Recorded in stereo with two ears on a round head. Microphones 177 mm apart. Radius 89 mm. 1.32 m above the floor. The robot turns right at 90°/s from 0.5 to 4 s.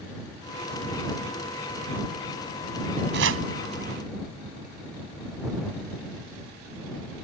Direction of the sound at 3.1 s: 60° right (ahead or behind).